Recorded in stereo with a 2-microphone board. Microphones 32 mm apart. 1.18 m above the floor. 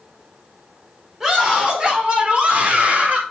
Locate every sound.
1.2 s a scream: 25° right (ahead or behind), 5 m; by 3.2 s 60° right (ahead or behind), 4.5 m